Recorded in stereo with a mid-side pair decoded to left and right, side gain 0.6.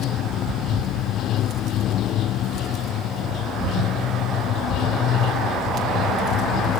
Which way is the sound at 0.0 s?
55° left.